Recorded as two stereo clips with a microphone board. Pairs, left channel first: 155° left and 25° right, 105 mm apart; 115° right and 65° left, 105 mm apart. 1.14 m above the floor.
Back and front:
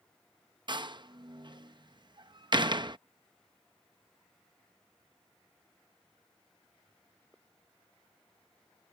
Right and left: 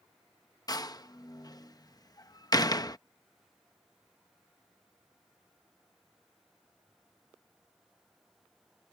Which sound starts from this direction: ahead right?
A door slam, at 0.7 s.